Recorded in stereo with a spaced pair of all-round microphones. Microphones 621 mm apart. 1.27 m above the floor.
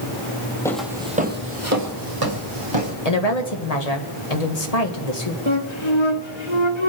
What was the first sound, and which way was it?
Footsteps, 5° left (ahead or behind).